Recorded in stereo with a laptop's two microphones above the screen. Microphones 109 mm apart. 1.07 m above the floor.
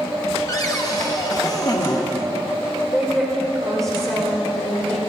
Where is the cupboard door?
35° left (ahead or behind), 1.1 m.